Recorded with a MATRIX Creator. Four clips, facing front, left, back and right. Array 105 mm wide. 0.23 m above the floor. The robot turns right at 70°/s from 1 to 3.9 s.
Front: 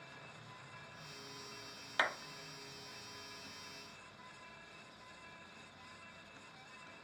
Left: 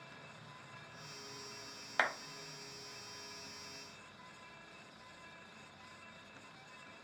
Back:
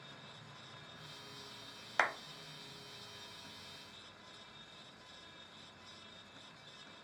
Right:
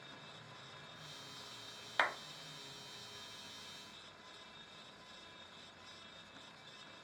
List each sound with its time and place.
2.0 s a clap: 160° left, 0.7 m; by 2.1 s 165° left, 0.7 m